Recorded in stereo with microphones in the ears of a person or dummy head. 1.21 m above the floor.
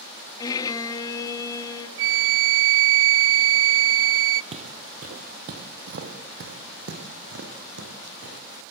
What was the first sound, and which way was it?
A violin, 20° left (ahead or behind).